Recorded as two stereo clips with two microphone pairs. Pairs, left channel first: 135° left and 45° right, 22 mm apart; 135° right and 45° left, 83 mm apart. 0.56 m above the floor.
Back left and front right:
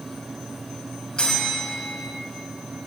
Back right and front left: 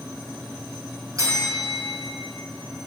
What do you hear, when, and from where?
1.2 s a bell: 85° left, 3 m